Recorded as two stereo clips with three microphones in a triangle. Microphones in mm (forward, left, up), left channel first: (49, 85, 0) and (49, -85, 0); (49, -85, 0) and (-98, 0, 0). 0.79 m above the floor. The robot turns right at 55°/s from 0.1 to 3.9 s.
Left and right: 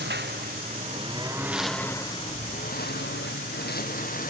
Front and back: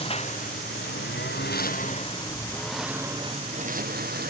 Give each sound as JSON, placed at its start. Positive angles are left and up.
{"t": 0.0, "sound": "a lawn mower", "azimuth_deg": -85}